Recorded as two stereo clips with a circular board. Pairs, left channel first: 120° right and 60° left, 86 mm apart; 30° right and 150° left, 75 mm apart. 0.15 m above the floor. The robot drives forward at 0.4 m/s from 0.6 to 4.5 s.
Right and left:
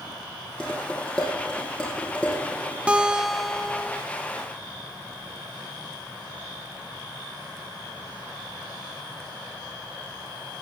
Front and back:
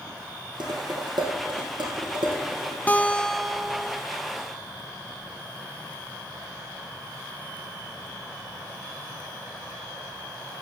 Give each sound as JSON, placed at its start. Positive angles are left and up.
{"t": 0.6, "sound": "dishes clattering", "azimuth_deg": 160, "distance_m": 3.5}
{"t": 2.9, "sound": "a guitar", "azimuth_deg": 0, "distance_m": 0.6}